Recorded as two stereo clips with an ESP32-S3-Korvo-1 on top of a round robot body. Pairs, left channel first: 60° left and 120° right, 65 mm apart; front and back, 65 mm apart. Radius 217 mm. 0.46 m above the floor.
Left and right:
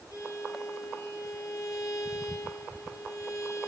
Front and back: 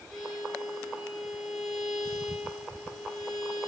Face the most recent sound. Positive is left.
turn(degrees=95)